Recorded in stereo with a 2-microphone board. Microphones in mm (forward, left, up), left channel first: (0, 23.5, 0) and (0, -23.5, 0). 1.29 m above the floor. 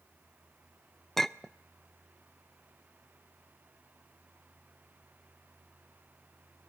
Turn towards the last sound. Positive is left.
turn(degrees=5)  # may be behind; listen again after turning